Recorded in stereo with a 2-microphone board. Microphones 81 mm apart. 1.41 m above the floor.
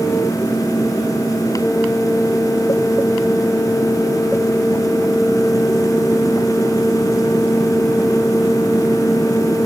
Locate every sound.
Only background noise.